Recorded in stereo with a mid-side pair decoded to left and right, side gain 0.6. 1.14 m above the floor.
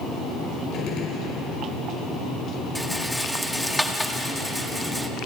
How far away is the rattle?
About 1.7 m.